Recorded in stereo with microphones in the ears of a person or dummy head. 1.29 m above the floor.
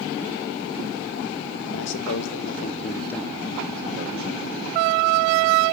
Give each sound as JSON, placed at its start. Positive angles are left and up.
{"t": 1.7, "sound": "a man speaking", "side_deg": 70, "distance_m": 1.9}